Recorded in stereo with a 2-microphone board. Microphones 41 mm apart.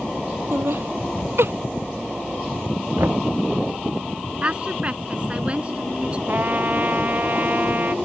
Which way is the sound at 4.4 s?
30° right (ahead or behind).